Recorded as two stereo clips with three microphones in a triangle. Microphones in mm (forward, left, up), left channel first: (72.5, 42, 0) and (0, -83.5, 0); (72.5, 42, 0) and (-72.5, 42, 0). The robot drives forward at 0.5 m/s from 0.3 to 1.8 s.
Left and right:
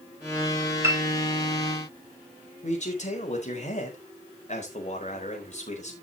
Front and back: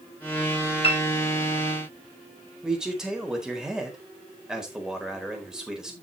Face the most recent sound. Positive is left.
turn(degrees=95)